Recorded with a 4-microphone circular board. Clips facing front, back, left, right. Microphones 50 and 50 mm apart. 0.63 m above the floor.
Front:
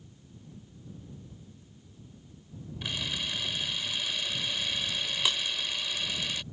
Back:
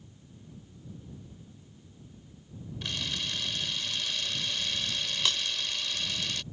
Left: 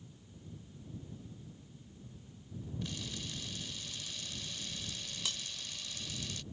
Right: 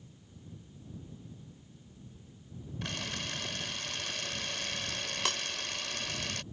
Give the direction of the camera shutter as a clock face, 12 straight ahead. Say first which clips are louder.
Front 1 dB, right 7 dB; 3 o'clock.